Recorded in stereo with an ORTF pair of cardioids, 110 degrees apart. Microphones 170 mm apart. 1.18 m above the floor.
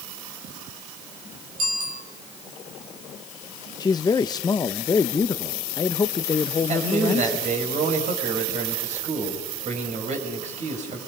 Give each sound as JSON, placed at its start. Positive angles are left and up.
{"t": 1.6, "sound": "a bicycle bell", "azimuth_deg": -65, "distance_m": 5.0}
{"t": 3.8, "sound": "a man speaking", "azimuth_deg": 25, "distance_m": 0.7}
{"t": 6.7, "sound": "a man speaking", "azimuth_deg": -45, "distance_m": 5.5}